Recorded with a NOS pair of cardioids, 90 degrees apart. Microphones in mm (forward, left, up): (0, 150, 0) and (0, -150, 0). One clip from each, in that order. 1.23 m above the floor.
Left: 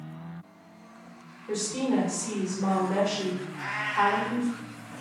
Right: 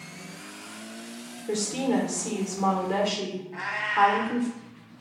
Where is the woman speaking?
35° right, 1.0 m.